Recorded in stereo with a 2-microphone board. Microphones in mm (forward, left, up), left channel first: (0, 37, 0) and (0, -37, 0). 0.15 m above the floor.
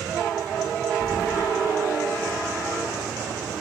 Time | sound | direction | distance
1.0 | keys jangling | 45° left (ahead or behind) | 1.5 m